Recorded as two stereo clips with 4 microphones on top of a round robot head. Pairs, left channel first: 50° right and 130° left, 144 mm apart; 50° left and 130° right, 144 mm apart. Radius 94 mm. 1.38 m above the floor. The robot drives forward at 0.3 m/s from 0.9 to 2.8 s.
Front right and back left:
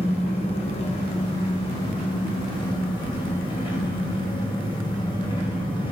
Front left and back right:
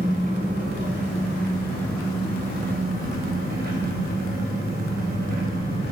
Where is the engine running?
95° right, 3 m; by 5.9 s 105° right, 3.5 m.